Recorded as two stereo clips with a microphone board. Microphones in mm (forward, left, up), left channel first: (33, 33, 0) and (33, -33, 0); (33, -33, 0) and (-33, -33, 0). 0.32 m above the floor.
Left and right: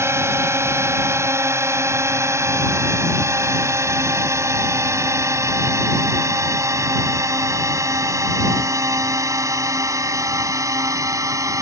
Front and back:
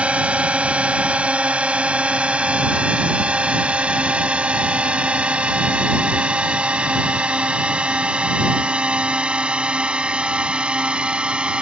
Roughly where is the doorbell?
I don't hear a doorbell.